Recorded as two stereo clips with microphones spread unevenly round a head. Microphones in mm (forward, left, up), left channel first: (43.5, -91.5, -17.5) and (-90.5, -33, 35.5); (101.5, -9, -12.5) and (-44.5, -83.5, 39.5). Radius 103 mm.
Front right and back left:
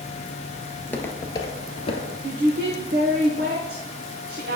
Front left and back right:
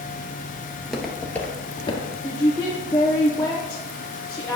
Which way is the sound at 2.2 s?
105° left.